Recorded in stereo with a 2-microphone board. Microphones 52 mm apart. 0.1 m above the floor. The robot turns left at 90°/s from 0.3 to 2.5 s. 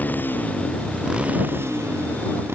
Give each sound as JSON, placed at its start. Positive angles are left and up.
{"t": 0.0, "sound": "a motorcycle", "side_deg": 35}